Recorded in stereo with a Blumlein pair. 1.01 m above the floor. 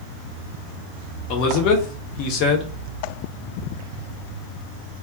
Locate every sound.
1.3 s a man speaking: 40° left, 0.7 m